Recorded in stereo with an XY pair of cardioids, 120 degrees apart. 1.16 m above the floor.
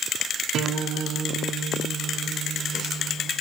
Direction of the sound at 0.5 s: 65° right.